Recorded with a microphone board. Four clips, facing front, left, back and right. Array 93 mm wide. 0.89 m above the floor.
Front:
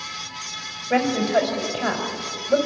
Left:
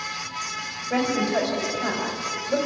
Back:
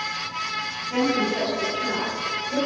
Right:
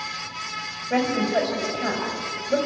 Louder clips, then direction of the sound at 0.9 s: Right 1 dB, front 3 dB; straight ahead.